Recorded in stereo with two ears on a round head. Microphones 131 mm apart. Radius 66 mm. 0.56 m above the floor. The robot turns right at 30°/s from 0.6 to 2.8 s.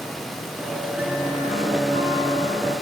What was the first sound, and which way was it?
A guitar, 120° left.